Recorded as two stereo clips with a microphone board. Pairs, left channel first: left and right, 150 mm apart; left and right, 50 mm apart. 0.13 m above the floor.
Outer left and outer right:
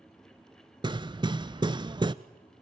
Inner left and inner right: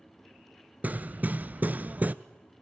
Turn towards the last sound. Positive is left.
turn(degrees=-30)  # may be behind; listen again after turning